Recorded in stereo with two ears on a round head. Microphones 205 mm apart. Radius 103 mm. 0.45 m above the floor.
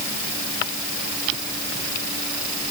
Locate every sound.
Only background noise.